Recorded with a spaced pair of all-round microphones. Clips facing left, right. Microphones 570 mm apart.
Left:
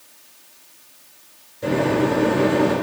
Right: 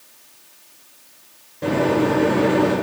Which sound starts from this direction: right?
A microwave, at 1.6 s.